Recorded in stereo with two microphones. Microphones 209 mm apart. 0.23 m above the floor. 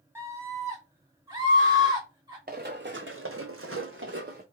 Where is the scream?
10° right (ahead or behind), 1.6 m; by 2.4 s 20° right (ahead or behind), 2.5 m.